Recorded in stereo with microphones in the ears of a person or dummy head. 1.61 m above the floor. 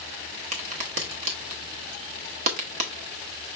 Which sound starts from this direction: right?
A crack, at 0.5 s.